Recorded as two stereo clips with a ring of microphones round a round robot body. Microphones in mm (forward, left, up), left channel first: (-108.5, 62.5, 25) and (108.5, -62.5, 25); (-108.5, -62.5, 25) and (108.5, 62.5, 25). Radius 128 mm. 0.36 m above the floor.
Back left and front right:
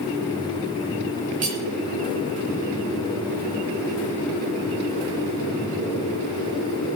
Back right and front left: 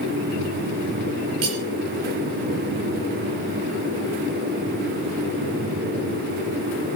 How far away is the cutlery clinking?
About 4.5 m.